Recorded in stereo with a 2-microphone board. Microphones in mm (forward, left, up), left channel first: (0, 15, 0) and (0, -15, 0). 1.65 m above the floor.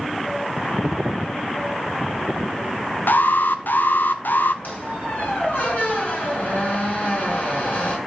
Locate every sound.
3.1 s an alarm: 80° left, 0.9 m
4.6 s a squeak: 55° left (ahead or behind), 5 m